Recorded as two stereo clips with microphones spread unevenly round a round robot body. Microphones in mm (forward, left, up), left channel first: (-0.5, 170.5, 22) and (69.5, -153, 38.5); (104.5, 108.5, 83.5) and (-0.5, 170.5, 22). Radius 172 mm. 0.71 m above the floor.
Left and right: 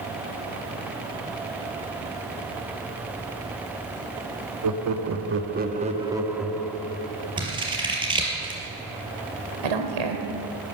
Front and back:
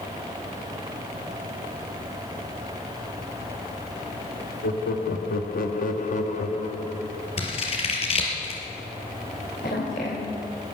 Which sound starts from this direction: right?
A woman speaking, at 9.6 s.